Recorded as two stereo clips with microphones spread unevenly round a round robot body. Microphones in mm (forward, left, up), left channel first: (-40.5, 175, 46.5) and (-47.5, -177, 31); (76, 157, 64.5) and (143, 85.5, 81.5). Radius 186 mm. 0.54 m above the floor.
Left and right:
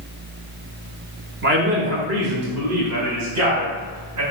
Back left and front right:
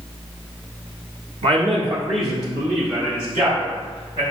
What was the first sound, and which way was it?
A man speaking, 50° right.